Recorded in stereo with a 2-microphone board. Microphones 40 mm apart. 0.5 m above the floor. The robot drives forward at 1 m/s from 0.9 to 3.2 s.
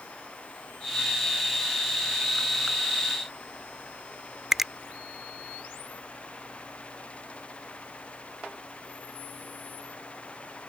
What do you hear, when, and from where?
4.5 s a finger snap: 10° right (ahead or behind)